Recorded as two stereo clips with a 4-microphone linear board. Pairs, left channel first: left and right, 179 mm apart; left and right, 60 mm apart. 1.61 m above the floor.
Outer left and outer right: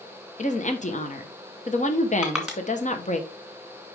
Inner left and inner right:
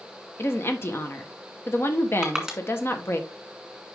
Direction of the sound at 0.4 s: 40° left (ahead or behind).